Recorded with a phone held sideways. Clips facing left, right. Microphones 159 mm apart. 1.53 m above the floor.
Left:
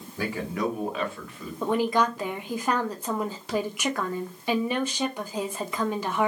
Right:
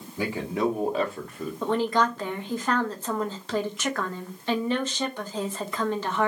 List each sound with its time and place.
0.2 s a man speaking: 20° right (ahead or behind), 1.4 m; by 1.5 s 55° right (ahead or behind), 0.9 m
1.6 s a woman speaking: 10° left (ahead or behind), 0.8 m